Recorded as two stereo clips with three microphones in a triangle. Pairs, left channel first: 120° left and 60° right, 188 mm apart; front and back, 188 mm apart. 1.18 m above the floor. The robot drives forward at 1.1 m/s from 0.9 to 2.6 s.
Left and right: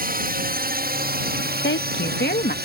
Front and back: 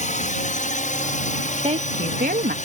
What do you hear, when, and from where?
0.0 s a drone: 40° right; by 2.6 s 45° right
1.6 s a woman speaking: 125° left; by 2.5 s 150° left